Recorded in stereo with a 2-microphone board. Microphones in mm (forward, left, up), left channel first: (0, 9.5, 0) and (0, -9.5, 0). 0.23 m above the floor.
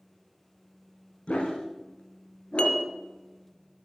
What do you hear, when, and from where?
1.3 s a dog barking: 65° left (ahead or behind), 8 m
2.6 s dishes clattering: 55° left (ahead or behind), 2.5 m